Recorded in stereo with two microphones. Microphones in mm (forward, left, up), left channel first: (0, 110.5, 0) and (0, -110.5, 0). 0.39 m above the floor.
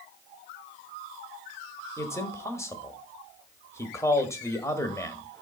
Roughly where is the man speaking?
Centre.